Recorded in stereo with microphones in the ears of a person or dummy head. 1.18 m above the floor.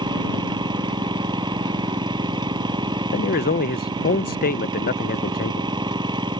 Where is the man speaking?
40° left (ahead or behind).